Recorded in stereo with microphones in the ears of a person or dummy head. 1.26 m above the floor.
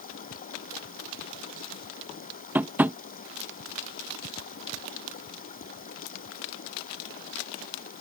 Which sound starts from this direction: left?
Running water, at 0.0 s.